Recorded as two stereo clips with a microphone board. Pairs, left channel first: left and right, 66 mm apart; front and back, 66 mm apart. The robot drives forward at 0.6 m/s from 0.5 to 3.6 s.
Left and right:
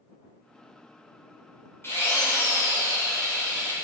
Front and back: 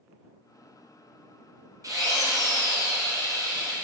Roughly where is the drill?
Behind left.